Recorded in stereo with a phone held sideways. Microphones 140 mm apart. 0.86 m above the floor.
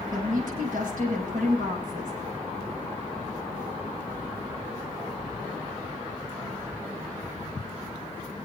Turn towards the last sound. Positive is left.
turn(degrees=-70)  # may be behind; listen again after turning